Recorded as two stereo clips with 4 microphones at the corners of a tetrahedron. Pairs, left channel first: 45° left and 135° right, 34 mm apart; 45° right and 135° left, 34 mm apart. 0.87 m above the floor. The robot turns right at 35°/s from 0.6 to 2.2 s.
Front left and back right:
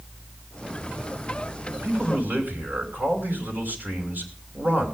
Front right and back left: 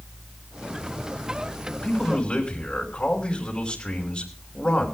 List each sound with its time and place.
1.8 s a man speaking: 125° right, 5.5 m; by 4.9 s 110° right, 5.5 m